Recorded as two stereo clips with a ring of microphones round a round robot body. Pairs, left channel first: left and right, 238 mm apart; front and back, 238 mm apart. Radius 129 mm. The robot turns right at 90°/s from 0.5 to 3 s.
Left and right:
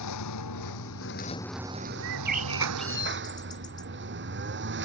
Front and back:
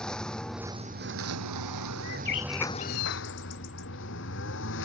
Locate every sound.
0.0 s a lawn mower: 85° left; by 4.8 s 50° right
2.0 s a bird: 70° right; by 3.9 s 20° left